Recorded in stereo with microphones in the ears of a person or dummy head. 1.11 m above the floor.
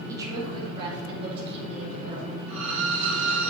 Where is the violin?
35° right (ahead or behind), 4 m.